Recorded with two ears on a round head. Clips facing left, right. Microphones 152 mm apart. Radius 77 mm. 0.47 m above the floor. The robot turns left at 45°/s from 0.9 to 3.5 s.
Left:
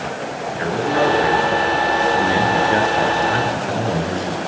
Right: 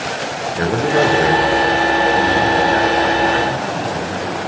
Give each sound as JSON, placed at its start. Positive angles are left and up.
{"t": 0.6, "sound": "a man speaking", "azimuth_deg": -125, "distance_m": 8.0}